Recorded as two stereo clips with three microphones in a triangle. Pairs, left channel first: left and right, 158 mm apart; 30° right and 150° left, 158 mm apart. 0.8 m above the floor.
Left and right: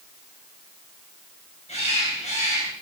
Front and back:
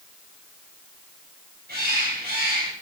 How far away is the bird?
About 4 m.